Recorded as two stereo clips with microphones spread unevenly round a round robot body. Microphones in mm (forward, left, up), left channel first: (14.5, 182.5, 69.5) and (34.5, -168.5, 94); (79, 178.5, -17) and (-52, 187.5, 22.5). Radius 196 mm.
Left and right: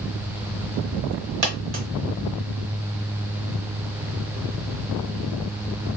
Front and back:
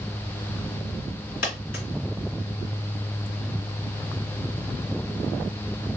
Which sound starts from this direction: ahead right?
A dropped coin, at 1.4 s.